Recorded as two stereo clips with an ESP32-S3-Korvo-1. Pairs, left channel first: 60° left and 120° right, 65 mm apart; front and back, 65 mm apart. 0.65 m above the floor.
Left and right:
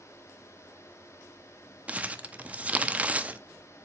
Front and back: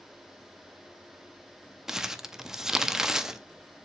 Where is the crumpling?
110° right, 0.5 m.